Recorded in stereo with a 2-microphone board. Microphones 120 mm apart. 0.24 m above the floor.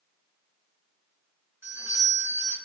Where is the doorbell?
15° right (ahead or behind), 1.6 m.